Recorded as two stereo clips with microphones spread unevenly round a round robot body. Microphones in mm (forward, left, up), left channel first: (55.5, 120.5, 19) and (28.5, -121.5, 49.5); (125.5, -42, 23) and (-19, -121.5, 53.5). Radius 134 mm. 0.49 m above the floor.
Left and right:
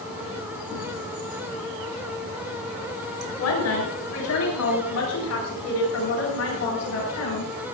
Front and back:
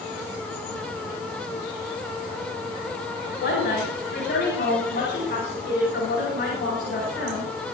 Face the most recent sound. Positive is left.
turn(degrees=65)